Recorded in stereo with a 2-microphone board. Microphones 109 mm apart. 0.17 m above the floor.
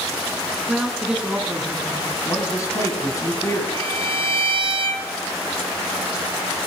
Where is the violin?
55° right (ahead or behind), 1.0 m.